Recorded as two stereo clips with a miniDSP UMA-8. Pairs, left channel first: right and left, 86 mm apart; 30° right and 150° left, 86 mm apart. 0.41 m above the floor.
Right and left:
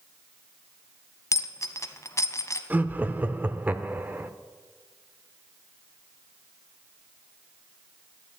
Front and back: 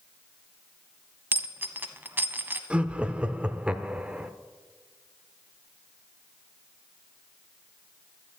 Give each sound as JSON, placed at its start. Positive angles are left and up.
{"t": 1.3, "sound": "a dropped coin", "azimuth_deg": -145, "distance_m": 0.9}
{"t": 2.7, "sound": "laughter", "azimuth_deg": 100, "distance_m": 0.7}